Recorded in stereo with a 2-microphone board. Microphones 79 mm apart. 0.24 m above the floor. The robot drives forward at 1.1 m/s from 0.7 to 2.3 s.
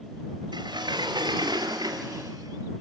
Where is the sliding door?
75° right (ahead or behind), 2.5 m; by 2.8 s 55° right (ahead or behind), 2.5 m.